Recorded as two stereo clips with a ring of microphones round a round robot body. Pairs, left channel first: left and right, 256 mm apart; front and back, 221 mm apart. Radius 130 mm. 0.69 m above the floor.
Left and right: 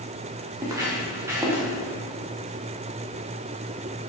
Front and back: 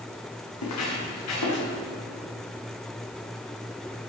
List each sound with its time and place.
0.6 s footsteps: 10° right, 5 m